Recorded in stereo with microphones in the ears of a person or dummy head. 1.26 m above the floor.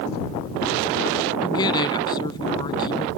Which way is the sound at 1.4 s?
20° left (ahead or behind).